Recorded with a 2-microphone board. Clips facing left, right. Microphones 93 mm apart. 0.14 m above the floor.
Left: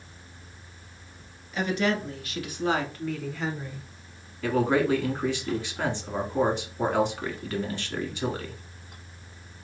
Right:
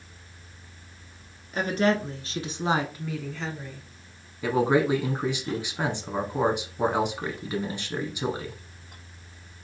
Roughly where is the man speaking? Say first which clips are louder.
Right 1 dB; centre.